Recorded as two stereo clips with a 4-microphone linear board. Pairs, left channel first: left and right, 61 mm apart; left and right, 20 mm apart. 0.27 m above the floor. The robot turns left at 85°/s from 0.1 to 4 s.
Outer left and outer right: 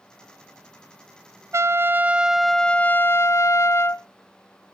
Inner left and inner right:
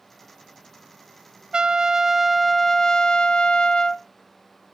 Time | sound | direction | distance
1.5 | a trumpet | 105° right | 0.5 m